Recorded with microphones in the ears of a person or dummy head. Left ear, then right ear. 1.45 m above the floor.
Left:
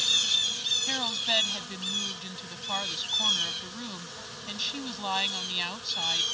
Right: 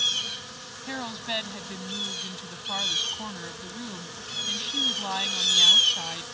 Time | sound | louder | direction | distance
0.9 | a woman speaking | left 5 dB | 20° left (ahead or behind) | ?